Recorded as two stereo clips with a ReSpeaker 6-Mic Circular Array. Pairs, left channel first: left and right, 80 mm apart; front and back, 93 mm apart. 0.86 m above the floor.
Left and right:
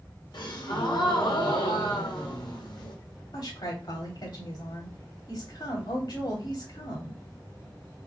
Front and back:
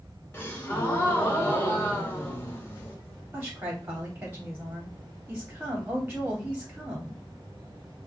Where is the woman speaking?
110° left, 2.5 m.